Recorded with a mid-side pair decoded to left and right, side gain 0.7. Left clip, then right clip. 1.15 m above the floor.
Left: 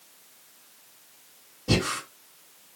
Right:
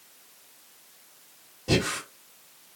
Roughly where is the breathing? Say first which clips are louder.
Even; ahead.